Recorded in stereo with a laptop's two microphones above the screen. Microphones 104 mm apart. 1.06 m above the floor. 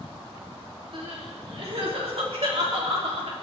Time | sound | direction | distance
0.9 | crying | 70° right (ahead or behind) | 3 m